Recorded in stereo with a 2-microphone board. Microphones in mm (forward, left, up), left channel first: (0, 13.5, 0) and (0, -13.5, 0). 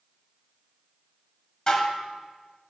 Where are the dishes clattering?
25° left (ahead or behind), 0.7 m.